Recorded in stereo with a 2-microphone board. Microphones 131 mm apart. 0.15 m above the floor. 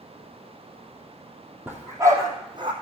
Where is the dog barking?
15° right (ahead or behind), 2.5 m; by 2.7 s 40° right (ahead or behind), 2 m.